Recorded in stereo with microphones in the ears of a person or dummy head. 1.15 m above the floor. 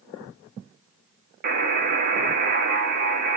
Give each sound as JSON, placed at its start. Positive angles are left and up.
{"t": 1.4, "sound": "a buzzer", "side_deg": -40, "distance_m": 0.9}